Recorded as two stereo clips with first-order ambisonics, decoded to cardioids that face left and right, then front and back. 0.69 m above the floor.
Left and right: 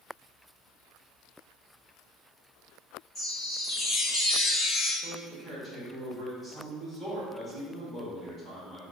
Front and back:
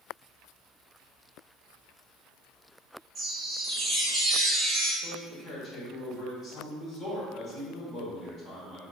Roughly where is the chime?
Behind left.